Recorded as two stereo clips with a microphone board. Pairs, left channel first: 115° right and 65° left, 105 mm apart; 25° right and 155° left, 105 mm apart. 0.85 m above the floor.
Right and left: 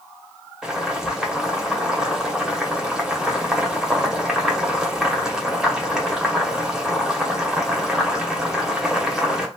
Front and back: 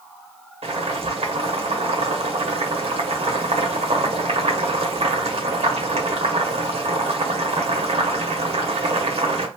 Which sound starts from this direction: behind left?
Boiling, at 0.6 s.